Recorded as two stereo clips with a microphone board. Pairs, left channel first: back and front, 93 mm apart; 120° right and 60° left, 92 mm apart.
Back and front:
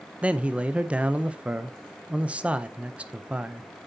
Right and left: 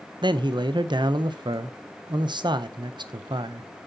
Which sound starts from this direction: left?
A man speaking, at 0.2 s.